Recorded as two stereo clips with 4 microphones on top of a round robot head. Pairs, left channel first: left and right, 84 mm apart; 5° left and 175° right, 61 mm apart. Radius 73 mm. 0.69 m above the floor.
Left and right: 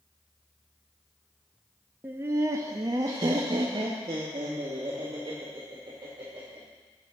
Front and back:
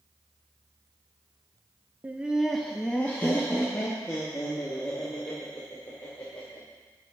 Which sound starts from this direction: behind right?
Laughter, at 2.0 s.